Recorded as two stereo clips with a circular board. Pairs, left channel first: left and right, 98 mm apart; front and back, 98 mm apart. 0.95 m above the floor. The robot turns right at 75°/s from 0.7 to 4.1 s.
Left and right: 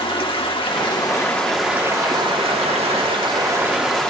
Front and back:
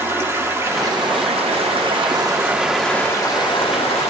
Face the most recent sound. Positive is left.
turn(degrees=10)